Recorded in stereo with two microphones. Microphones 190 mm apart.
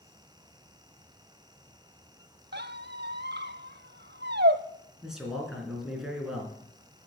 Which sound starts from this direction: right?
A squeak, at 2.5 s.